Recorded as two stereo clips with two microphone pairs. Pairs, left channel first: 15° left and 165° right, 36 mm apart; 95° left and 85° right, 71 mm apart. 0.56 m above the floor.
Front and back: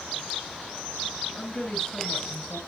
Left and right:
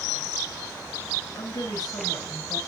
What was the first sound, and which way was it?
A woman speaking, 75° left.